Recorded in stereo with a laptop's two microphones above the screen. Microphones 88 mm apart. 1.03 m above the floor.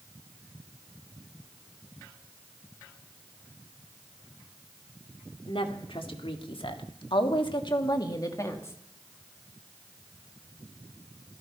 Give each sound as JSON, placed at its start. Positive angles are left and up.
{"t": 5.5, "sound": "a woman speaking", "side_deg": 75, "distance_m": 2.5}